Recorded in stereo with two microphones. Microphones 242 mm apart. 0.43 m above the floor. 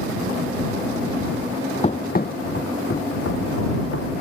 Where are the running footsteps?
25° left (ahead or behind); by 4.1 s 75° left (ahead or behind).